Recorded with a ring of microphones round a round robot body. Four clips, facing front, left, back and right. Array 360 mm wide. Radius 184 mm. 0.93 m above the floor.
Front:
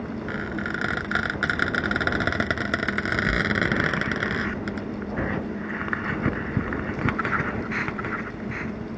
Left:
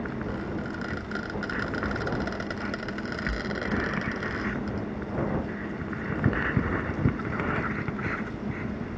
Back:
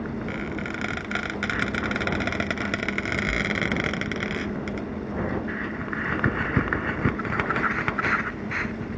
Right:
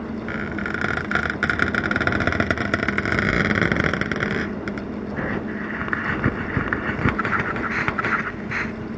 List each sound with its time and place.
0.3 s a squeak: 80° right